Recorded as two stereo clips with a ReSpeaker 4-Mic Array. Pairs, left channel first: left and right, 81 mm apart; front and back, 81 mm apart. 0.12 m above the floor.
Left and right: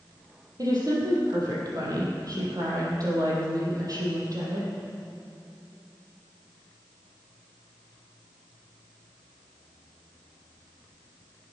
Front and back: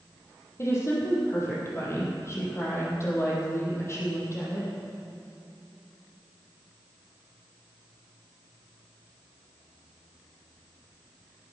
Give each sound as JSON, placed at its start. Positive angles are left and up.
{"t": 0.6, "sound": "a woman speaking", "azimuth_deg": -55, "distance_m": 4.5}